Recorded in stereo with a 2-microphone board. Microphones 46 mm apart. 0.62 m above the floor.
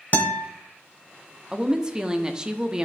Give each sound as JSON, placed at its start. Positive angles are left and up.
{"t": 0.1, "sound": "a guitar", "side_deg": 40, "distance_m": 1.0}
{"t": 1.5, "sound": "a woman speaking", "side_deg": -20, "distance_m": 0.9}